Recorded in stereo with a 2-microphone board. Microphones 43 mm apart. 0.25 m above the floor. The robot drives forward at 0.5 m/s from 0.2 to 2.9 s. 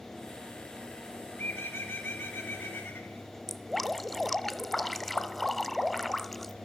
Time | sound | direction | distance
1.4 | a bird | 60° left (ahead or behind) | 4.5 m
3.5 | dripping | 5° left (ahead or behind) | 1.0 m